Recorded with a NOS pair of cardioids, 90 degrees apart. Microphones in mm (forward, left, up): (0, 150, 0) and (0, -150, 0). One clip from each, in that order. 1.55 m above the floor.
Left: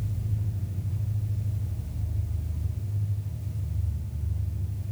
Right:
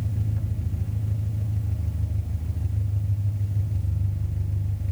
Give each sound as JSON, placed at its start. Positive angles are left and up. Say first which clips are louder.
{"t": 0.0, "sound": "an engine running", "louder": "right 3 dB", "azimuth_deg": -70, "distance_m": 2.0}